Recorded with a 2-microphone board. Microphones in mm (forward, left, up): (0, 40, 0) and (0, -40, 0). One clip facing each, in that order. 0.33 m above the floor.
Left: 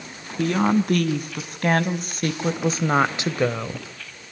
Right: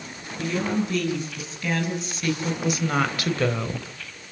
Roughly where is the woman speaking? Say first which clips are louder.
Left 5 dB; left.